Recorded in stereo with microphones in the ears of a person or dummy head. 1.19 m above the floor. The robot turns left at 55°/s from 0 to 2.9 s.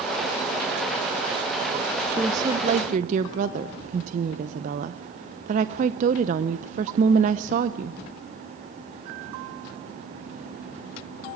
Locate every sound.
2.2 s a woman speaking: 10° right, 0.6 m; by 8.0 s 50° right, 0.6 m